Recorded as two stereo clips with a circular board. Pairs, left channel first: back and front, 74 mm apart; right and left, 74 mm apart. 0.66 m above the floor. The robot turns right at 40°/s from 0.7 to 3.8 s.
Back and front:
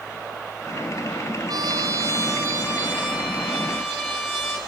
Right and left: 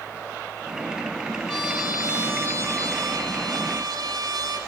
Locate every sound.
1.5 s a trumpet: 10° right, 6 m; by 4.6 s 85° left, 6 m